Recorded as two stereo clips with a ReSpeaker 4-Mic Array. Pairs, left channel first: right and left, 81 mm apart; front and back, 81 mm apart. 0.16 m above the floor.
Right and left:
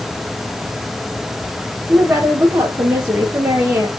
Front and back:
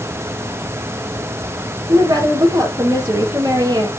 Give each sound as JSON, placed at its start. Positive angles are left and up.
{"t": 1.9, "sound": "a woman speaking", "azimuth_deg": 145, "distance_m": 4.0}